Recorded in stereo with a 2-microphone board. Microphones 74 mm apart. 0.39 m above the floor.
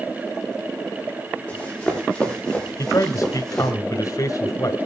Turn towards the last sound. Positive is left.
turn(degrees=50)  # may be behind; listen again after turning